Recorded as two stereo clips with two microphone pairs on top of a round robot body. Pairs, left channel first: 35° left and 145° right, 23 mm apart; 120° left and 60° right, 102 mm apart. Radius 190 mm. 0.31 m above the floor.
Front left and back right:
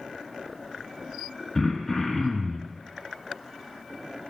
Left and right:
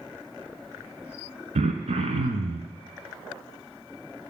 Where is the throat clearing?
40° right, 0.9 m.